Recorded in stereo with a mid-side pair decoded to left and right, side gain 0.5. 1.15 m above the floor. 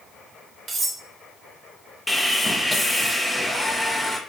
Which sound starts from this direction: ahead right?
Cutlery clinking, at 0.7 s.